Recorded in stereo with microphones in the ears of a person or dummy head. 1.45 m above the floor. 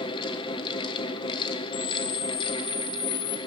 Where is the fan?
30° left (ahead or behind), 1.5 m.